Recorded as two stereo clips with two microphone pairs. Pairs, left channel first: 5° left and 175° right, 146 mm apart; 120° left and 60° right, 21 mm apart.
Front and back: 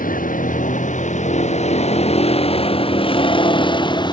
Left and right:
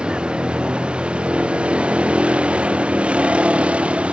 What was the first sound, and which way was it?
A vehicle, 20° right.